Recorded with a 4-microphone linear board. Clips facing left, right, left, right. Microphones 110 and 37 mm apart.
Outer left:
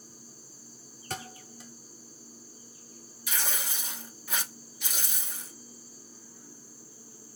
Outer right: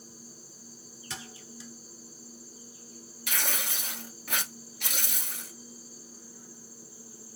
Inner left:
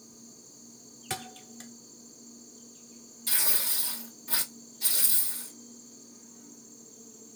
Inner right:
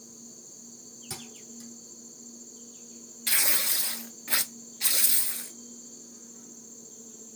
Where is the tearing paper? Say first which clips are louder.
Outer right 1 dB, inner right 5 dB; 65° right (ahead or behind), 1.1 m.